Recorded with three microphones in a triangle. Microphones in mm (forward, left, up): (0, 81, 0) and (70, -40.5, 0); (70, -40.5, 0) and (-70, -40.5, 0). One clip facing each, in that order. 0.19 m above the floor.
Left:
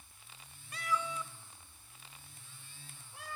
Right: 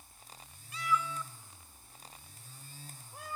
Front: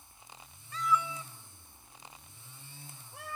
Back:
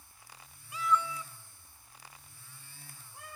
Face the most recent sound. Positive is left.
turn(degrees=-15)